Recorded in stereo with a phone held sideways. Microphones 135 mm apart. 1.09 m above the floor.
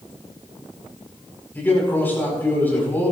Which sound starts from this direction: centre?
A man speaking, at 1.6 s.